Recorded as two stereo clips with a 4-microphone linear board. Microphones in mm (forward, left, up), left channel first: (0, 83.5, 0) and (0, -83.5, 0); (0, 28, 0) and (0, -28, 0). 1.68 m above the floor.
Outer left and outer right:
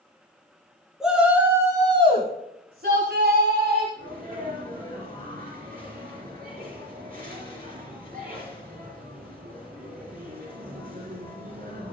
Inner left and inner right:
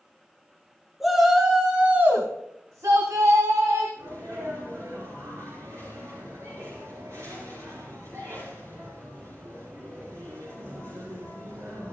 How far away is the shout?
About 3 m.